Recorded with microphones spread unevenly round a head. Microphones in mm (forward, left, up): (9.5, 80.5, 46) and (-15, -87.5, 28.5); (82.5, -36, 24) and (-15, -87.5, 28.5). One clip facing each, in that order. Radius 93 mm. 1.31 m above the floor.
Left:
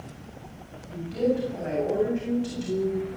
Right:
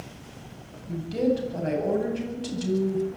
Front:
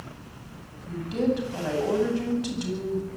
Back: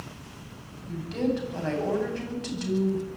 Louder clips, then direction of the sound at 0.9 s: Right 1 dB, front 2 dB; 50° right.